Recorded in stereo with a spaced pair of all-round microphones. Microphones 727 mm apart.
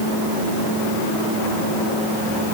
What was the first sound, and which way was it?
Only background noise.